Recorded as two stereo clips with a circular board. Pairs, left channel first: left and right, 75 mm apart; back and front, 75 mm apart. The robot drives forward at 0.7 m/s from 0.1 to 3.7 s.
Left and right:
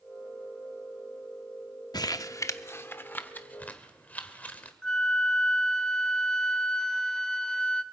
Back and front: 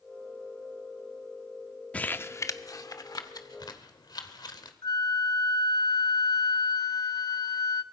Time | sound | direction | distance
1.9 | crumpling | 110° left | 0.6 m
4.8 | a flute | 170° left | 0.7 m